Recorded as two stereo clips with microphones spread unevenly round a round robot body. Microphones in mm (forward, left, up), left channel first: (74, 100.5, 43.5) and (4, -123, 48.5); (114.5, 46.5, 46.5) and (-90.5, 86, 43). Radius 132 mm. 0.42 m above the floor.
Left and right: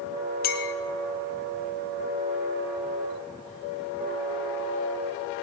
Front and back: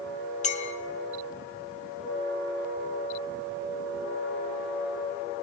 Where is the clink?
35° left, 1.0 m.